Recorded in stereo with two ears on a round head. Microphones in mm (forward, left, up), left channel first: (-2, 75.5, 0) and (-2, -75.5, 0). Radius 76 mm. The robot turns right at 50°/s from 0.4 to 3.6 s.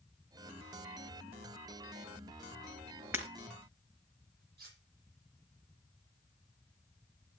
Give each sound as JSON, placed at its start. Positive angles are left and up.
{"t": 3.1, "sound": "breaking glass", "side_deg": -15, "distance_m": 4.0}
{"t": 4.6, "sound": "cutlery clinking", "side_deg": -65, "distance_m": 8.5}